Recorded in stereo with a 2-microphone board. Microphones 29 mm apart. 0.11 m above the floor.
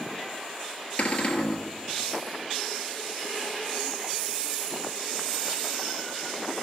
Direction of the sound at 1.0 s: 55° left (ahead or behind).